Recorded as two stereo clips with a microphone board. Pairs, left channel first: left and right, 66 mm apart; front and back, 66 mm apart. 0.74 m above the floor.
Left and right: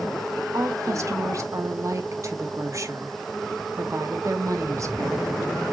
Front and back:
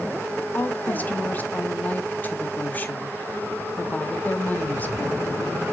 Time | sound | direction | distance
0.5 | a woman speaking | 60° right | 1.2 m